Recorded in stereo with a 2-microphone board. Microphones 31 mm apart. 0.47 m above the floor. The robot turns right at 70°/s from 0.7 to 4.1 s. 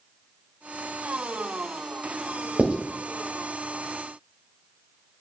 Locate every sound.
2.6 s writing: 50° right (ahead or behind), 1.8 m; by 2.8 s 40° right (ahead or behind), 1.8 m